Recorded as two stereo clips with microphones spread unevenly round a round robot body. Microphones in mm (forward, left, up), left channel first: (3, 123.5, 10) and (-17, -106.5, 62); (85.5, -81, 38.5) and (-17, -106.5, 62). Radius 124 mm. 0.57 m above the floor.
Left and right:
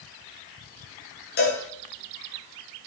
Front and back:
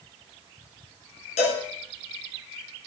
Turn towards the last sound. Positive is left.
turn(degrees=35)